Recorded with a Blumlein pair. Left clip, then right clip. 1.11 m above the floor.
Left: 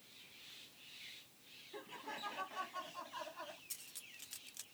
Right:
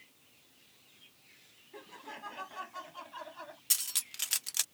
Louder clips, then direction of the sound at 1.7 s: Right 1 dB; straight ahead.